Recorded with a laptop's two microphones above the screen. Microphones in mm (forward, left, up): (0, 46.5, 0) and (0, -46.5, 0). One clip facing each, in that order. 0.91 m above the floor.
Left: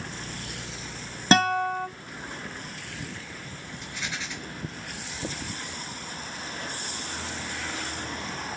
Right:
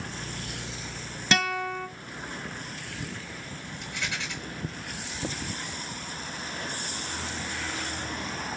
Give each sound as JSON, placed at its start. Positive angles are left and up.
{"t": 1.3, "sound": "a guitar", "side_deg": 35, "distance_m": 1.2}
{"t": 3.8, "sound": "a rattle", "side_deg": -70, "distance_m": 4.0}